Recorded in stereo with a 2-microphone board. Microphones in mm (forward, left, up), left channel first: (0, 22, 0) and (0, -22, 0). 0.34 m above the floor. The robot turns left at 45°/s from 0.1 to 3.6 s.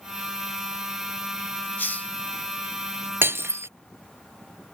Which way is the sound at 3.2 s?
55° right (ahead or behind).